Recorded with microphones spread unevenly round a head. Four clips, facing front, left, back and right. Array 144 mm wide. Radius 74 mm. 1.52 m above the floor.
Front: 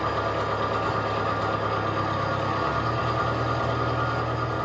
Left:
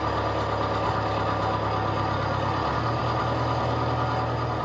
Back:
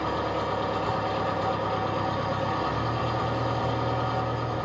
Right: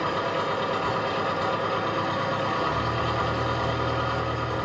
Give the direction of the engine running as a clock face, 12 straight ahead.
2 o'clock.